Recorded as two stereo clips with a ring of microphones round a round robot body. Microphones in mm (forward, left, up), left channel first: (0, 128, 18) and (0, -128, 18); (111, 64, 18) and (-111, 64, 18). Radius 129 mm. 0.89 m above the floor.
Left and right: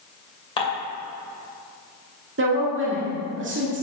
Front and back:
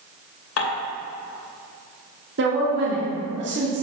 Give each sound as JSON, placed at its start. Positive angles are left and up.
{"t": 0.6, "sound": "dishes clattering", "azimuth_deg": 20, "distance_m": 2.5}
{"t": 2.4, "sound": "a woman speaking", "azimuth_deg": -135, "distance_m": 2.0}